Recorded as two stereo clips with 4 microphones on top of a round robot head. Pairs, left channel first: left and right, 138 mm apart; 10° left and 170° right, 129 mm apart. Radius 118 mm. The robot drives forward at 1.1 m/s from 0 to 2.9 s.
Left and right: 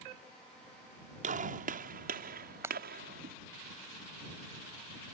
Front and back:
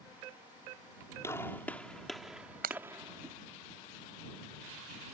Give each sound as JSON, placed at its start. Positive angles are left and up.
{"t": 1.2, "sound": "a gunshot", "azimuth_deg": -65}
{"t": 2.6, "sound": "breaking glass", "azimuth_deg": -165}